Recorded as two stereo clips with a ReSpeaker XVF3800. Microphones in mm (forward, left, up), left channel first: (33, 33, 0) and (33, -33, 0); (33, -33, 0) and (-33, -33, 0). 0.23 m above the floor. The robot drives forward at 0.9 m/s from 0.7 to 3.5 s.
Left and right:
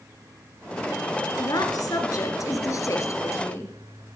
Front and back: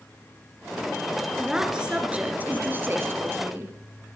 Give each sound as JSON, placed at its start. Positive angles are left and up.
{"t": 1.4, "sound": "a woman speaking", "azimuth_deg": 100, "distance_m": 2.5}